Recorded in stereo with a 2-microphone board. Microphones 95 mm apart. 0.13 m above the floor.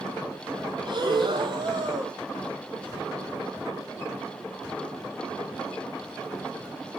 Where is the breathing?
60° right (ahead or behind), 0.6 m.